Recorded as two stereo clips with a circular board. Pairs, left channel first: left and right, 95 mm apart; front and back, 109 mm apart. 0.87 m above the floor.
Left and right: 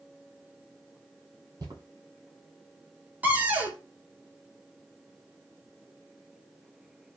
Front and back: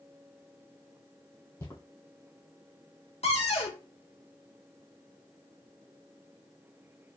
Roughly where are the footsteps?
Ahead right.